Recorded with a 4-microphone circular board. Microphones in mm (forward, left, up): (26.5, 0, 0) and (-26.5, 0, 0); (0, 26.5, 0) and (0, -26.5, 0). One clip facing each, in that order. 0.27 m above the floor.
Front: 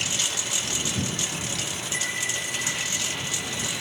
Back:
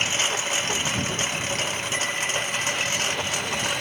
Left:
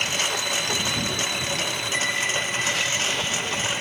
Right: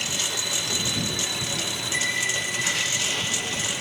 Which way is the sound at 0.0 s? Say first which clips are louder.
Back 5 dB, left 4 dB; 130° left.